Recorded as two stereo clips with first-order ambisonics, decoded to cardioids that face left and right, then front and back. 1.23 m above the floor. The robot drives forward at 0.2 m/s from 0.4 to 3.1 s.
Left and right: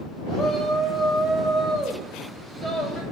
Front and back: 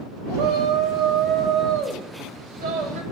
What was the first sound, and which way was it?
A shout, straight behind.